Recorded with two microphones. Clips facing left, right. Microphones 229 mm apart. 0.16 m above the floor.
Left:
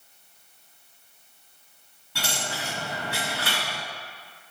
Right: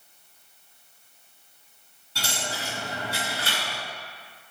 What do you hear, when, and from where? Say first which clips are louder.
2.1 s a dropped coin: left 1 dB; 70° left (ahead or behind), 1.9 m